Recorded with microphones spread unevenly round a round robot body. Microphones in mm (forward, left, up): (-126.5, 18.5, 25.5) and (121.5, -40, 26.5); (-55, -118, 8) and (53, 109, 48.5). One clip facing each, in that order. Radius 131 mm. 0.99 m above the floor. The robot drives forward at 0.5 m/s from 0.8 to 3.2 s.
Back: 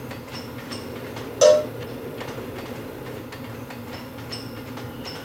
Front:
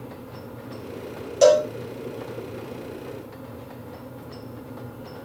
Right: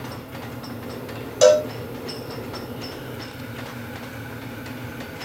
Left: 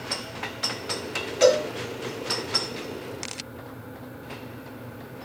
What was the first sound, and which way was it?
A cowbell, 120° right.